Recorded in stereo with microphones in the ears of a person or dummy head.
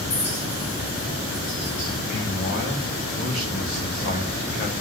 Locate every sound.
0.1 s a clink: 30° left (ahead or behind), 5 m
2.1 s a man speaking: 35° left (ahead or behind), 3 m